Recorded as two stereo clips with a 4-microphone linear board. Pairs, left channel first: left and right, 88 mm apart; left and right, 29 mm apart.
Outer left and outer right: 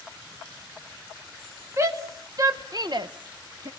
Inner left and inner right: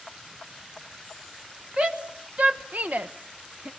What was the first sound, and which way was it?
A shout, 35° right (ahead or behind).